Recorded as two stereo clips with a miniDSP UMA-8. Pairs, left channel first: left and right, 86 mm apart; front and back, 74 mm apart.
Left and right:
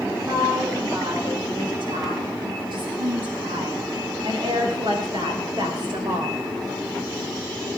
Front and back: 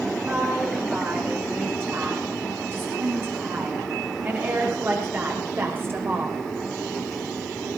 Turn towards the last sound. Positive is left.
turn(degrees=-120)